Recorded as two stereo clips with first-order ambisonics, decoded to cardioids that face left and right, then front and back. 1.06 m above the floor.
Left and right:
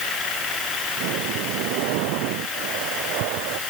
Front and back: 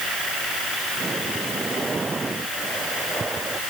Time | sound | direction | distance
1.0 | breathing | 105° right | ?